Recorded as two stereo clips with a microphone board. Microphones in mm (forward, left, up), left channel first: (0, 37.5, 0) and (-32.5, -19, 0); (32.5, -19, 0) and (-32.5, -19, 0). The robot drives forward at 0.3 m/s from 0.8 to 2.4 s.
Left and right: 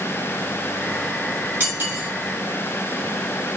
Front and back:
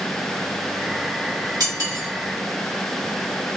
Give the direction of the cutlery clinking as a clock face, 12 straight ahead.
6 o'clock.